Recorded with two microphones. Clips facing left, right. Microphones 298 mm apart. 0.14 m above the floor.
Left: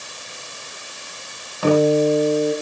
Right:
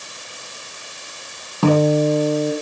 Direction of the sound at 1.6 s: 55° right (ahead or behind).